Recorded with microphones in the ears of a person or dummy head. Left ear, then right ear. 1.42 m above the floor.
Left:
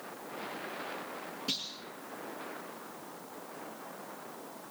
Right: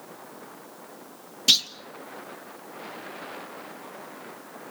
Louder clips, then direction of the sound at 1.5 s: Right 17 dB; 60° right (ahead or behind).